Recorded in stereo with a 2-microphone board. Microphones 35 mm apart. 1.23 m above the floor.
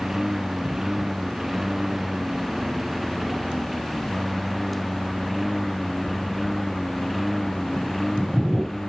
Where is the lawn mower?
10° right (ahead or behind); by 8.9 s 5° left (ahead or behind).